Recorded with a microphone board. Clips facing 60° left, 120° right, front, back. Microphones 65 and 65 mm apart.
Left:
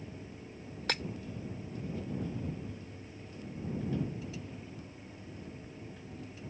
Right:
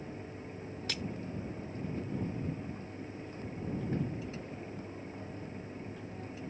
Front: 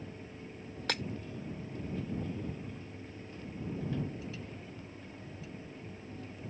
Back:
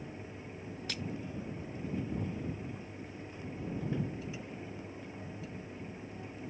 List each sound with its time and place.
0.9 s breaking glass: 25° left